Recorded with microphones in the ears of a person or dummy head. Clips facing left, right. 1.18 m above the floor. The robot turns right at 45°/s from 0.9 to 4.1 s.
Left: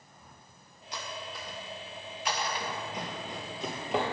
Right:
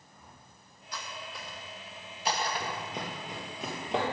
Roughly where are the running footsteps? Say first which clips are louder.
Even; centre.